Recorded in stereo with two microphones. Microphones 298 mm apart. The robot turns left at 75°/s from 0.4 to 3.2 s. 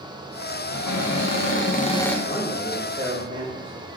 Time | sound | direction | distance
0.7 | a cupboard door | 110° left | 0.6 m
2.2 | a man speaking | 30° left | 1.3 m